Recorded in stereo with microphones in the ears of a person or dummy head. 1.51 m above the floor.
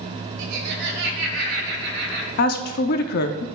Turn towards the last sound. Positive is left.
turn(degrees=60)  # may be behind; listen again after turning